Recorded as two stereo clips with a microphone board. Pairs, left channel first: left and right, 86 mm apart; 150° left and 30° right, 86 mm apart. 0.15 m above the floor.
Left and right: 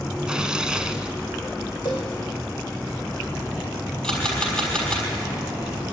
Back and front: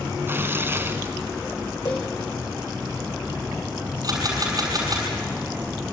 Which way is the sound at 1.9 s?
115° left.